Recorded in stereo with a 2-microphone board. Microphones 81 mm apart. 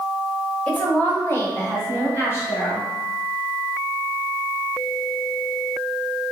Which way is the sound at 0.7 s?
15° left (ahead or behind).